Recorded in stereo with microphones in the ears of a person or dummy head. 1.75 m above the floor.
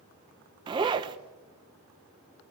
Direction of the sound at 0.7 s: 20° right (ahead or behind).